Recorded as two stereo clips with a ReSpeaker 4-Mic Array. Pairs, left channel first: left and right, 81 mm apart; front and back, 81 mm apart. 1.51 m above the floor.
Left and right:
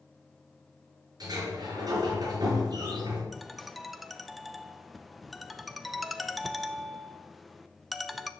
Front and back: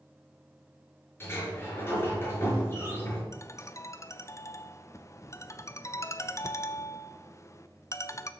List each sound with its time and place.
1.2 s a sliding door: 60° right, 4 m
3.3 s a ringtone: straight ahead, 0.6 m